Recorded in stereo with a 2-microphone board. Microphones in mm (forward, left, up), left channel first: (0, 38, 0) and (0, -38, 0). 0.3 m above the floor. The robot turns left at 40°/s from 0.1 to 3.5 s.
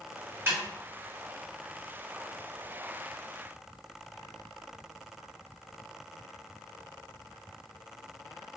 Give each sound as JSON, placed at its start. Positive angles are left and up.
{"t": 0.5, "sound": "a snare drum", "side_deg": -35, "distance_m": 1.8}